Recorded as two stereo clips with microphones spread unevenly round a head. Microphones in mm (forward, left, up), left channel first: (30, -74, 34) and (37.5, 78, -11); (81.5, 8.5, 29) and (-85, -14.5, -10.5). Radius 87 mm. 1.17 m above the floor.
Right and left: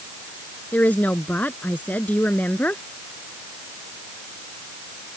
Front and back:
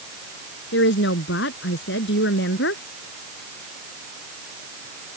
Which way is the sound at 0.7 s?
15° right.